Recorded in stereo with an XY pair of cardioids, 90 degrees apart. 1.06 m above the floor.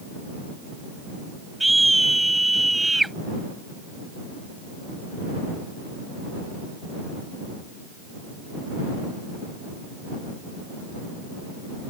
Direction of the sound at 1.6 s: 10° right.